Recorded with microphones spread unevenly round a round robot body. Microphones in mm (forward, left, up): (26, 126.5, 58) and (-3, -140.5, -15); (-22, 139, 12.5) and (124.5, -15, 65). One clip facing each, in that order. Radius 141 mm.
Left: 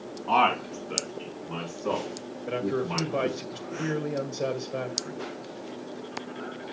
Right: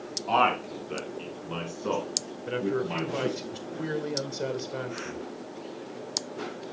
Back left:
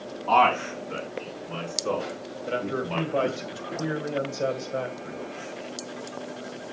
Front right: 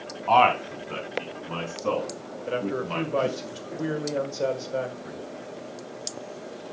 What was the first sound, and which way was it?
A man speaking, 15° right.